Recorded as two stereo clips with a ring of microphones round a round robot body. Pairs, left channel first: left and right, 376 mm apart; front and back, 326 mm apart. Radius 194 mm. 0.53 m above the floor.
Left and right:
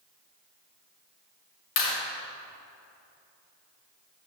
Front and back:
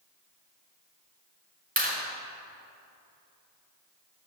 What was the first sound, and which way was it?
A clap, 115° left.